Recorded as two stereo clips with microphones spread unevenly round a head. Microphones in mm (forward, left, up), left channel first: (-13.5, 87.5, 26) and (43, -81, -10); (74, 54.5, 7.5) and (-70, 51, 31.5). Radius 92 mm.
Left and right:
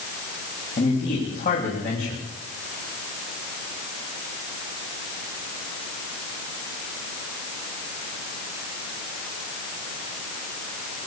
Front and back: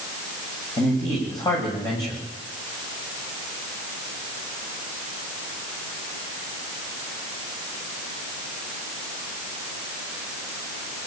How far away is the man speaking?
About 8.5 m.